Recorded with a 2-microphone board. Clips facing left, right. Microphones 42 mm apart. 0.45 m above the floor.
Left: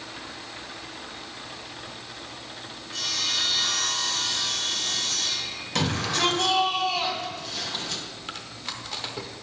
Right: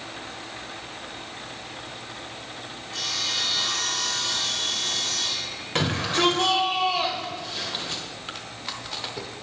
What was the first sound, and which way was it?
Sawing, 25° right (ahead or behind).